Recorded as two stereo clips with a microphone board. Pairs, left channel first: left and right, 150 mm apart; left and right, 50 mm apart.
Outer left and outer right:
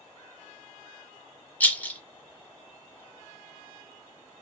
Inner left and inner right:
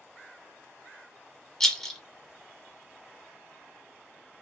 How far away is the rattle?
About 0.9 m.